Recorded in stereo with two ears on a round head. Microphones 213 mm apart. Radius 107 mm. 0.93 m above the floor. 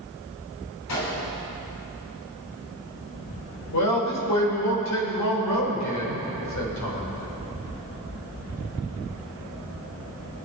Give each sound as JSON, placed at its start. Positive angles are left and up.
{"t": 0.9, "sound": "a gunshot", "side_deg": 80, "distance_m": 3.5}
{"t": 3.7, "sound": "a man speaking", "side_deg": 80, "distance_m": 4.0}